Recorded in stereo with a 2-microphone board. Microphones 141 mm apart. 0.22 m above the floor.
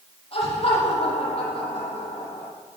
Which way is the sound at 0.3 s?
45° left (ahead or behind).